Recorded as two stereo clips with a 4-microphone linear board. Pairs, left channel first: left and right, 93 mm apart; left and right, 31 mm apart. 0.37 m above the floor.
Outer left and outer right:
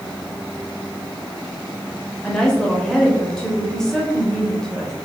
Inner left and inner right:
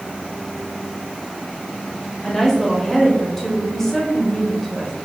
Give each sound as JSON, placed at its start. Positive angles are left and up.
{"t": 2.2, "sound": "a woman speaking", "side_deg": 5, "distance_m": 1.2}